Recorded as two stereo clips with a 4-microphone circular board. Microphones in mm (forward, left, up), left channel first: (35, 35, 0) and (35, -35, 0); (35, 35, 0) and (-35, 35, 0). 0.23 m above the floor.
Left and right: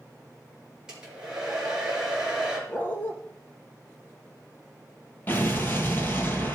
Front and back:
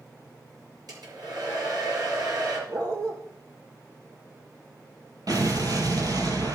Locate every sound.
0.9 s a hair dryer: 170° right, 4 m
2.7 s a dog barking: 150° left, 1.9 m
5.3 s an explosion: 150° left, 1.8 m